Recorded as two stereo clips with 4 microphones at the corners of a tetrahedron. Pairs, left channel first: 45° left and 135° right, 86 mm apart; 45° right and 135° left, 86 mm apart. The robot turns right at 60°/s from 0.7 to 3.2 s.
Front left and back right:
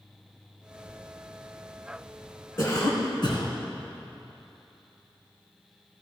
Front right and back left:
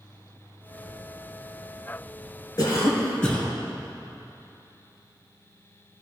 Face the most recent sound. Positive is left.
turn(degrees=35)